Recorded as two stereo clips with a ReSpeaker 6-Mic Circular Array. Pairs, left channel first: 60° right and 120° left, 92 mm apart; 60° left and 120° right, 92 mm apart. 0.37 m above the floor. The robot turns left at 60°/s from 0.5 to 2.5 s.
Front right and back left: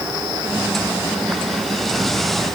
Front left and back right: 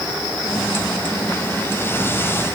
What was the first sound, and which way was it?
Only background noise.